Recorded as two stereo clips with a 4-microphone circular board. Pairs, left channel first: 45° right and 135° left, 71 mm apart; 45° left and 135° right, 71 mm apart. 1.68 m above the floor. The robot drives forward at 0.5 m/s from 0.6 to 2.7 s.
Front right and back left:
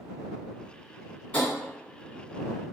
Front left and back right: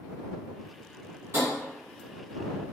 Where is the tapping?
110° right, 1.6 m; by 1.5 s 115° right, 1.7 m.